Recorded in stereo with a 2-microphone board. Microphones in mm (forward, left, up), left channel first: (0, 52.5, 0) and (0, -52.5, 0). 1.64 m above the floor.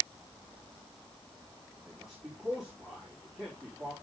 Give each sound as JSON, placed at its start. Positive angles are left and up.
{"t": 1.9, "sound": "a man speaking", "side_deg": 0, "distance_m": 4.0}